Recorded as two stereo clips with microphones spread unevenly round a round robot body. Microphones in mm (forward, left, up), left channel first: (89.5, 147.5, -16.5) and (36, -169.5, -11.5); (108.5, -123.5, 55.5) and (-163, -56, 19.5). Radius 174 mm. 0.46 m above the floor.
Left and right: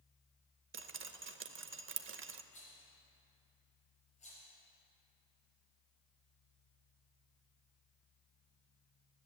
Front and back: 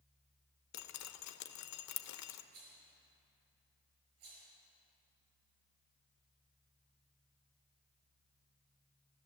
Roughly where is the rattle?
Behind left.